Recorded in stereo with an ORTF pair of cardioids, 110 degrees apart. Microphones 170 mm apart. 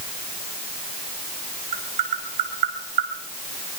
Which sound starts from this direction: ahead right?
Tapping, at 1.7 s.